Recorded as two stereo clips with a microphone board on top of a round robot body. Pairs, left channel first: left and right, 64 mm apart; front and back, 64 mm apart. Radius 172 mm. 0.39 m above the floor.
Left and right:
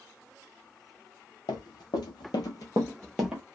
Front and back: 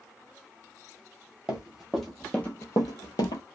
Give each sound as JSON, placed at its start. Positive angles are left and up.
{"t": 1.5, "sound": "running footsteps", "azimuth_deg": 105, "distance_m": 1.0}